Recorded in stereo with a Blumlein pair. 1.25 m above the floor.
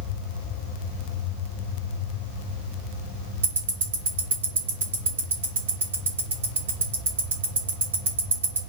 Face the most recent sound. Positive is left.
turn(degrees=-60)